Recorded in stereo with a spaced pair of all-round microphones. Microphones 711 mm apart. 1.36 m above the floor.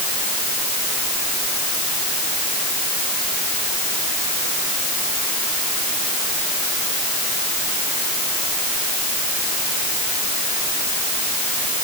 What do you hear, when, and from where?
Only background noise.